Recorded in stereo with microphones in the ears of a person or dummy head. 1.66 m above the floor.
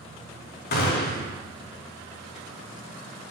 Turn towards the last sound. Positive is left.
turn(degrees=45)  # may be behind; listen again after turning